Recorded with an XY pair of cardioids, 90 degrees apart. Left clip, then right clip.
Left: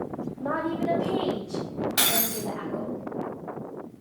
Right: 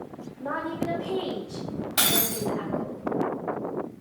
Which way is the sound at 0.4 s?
35° left.